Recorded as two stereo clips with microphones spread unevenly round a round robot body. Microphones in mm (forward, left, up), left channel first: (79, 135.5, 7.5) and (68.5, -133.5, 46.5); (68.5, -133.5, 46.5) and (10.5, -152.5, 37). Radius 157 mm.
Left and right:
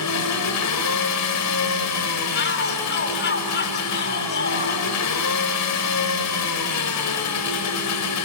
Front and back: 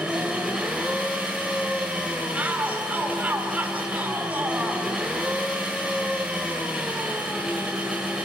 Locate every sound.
0.0 s an engine running: 110° left, 1.7 m
2.3 s a shout: 130° left, 2 m